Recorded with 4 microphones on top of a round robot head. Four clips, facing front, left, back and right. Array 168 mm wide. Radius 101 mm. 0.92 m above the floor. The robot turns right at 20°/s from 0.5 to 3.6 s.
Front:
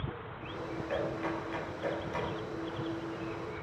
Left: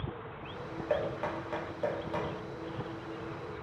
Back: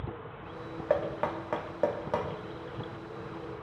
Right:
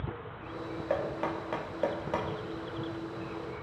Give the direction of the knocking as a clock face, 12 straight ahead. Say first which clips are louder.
Even, back 6 dB; 6 o'clock.